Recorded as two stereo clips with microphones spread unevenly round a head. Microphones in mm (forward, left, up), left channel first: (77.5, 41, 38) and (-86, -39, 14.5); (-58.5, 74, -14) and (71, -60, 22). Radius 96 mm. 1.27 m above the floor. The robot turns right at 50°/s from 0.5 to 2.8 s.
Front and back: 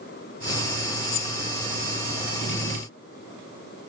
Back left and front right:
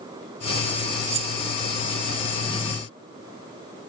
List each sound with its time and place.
1.1 s keys jangling: 5° left; by 1.4 s 20° left